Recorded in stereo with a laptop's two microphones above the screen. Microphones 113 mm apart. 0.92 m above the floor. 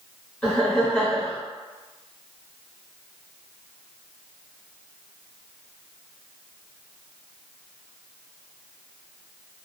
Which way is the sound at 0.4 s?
10° left (ahead or behind).